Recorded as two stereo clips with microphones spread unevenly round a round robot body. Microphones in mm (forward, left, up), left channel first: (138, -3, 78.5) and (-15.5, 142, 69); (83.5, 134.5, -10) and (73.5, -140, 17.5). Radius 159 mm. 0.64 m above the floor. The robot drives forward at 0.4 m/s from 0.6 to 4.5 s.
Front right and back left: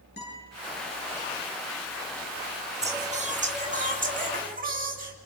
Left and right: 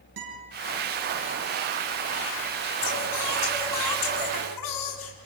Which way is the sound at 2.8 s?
75° left.